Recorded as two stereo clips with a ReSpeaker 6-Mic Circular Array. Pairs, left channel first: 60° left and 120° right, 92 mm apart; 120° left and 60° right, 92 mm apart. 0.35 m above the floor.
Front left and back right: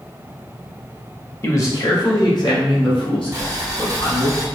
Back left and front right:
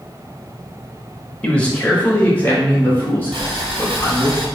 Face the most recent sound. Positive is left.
turn(degrees=-65)